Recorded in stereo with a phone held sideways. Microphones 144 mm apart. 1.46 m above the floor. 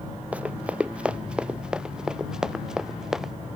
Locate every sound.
0.3 s running footsteps: 10° right (ahead or behind); by 3.3 s 5° right (ahead or behind)